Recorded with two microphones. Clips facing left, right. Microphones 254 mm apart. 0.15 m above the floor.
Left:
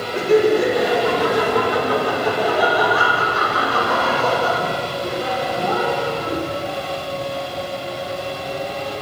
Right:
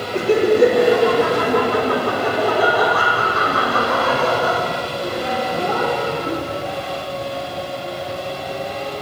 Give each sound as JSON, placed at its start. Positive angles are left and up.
{"t": 0.1, "sound": "laughter", "side_deg": -60, "distance_m": 3.0}